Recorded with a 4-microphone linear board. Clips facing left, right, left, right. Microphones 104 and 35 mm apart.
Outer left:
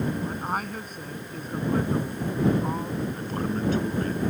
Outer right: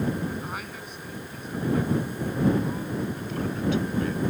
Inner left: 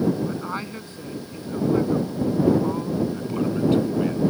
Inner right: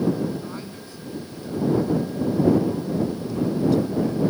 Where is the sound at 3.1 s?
40° left (ahead or behind).